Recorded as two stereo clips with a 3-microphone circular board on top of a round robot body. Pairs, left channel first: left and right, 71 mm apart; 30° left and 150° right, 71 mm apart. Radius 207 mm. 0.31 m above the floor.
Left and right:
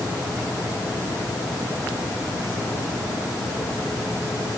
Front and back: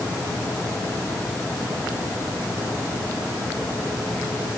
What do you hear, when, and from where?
Only background noise.